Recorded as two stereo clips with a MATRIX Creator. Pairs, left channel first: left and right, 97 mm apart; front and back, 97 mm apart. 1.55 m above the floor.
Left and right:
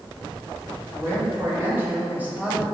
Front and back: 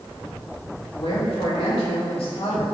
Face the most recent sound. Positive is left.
turn(degrees=-10)